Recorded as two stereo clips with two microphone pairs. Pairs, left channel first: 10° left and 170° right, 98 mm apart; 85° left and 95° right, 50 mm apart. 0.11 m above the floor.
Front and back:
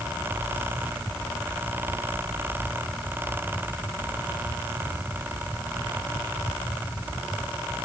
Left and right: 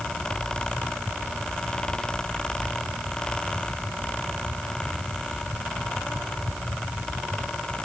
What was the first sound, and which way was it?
Only background noise.